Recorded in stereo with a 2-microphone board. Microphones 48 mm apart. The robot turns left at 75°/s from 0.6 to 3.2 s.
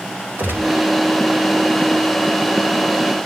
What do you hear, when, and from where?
0.4 s a gunshot: 45° right (ahead or behind), 2 m; by 0.9 s 30° right (ahead or behind), 2 m